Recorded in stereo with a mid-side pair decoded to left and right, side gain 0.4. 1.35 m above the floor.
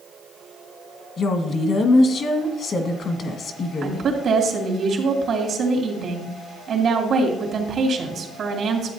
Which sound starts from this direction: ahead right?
A woman speaking, at 3.8 s.